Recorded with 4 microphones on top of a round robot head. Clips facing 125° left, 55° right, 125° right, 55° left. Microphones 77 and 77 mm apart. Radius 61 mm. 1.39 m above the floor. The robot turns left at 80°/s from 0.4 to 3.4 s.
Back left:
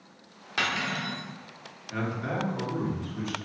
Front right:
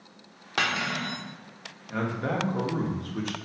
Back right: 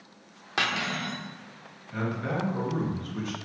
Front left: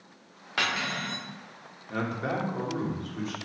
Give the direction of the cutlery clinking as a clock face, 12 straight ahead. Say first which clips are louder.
Front right 2 dB, back right 1 dB; 2 o'clock.